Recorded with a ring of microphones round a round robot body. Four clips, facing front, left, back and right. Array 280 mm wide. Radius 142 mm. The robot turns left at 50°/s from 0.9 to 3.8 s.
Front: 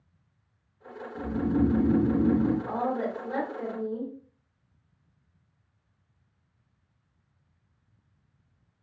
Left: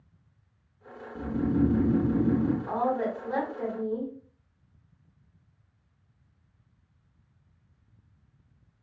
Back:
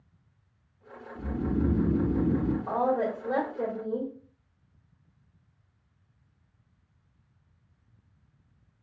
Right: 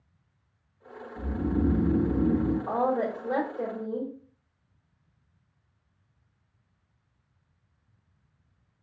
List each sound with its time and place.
1.1 s snoring: 70° left, 1.2 m; by 2.6 s straight ahead, 1.2 m
2.7 s a woman speaking: 100° right, 1.7 m; by 4.1 s 160° right, 1.7 m